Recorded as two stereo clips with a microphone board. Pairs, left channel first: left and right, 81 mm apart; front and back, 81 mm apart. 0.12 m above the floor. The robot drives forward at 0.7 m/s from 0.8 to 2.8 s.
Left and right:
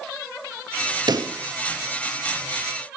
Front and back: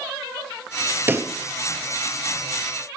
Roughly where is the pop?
Behind right.